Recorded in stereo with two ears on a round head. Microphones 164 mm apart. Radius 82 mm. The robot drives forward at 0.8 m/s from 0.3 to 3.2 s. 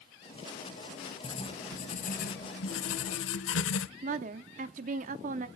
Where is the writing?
30° left (ahead or behind), 1.6 m; by 3.9 s 75° left (ahead or behind), 0.8 m.